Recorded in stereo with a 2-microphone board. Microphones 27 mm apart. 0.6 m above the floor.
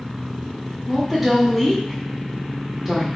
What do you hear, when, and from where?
0.9 s a woman speaking: 10° right (ahead or behind), 1.2 m